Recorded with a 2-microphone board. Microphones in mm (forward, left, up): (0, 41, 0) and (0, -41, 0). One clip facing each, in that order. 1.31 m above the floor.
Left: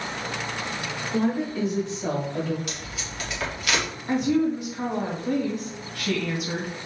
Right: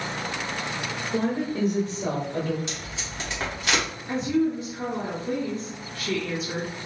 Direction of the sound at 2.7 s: 25° right (ahead or behind).